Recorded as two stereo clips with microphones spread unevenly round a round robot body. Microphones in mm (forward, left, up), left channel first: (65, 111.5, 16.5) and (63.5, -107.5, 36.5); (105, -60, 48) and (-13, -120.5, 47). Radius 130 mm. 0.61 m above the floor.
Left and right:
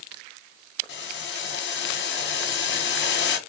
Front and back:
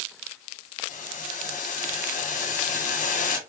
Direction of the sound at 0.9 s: 55° left.